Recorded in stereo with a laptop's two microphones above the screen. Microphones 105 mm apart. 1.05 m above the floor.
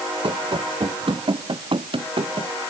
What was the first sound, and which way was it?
Running footsteps, 50° right (ahead or behind).